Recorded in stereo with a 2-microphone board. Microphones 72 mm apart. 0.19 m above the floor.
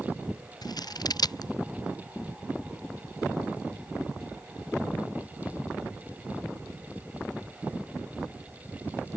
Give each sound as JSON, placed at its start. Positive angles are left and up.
{"t": 0.6, "sound": "scissors", "side_deg": 65}